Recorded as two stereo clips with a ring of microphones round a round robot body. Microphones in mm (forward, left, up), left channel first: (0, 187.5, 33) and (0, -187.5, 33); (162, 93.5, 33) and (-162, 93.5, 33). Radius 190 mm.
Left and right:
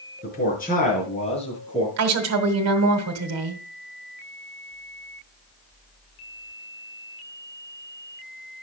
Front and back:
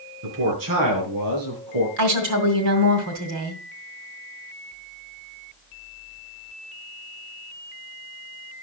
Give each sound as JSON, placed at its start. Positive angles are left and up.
{"t": 0.2, "sound": "a man speaking", "azimuth_deg": 155, "distance_m": 5.5}
{"t": 2.0, "sound": "a woman speaking", "azimuth_deg": -140, "distance_m": 2.0}